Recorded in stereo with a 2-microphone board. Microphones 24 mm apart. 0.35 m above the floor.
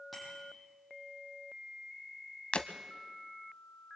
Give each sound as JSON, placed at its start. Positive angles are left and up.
{"t": 0.1, "sound": "a bicycle bell", "side_deg": -5, "distance_m": 9.0}
{"t": 2.5, "sound": "breaking glass", "side_deg": 55, "distance_m": 1.1}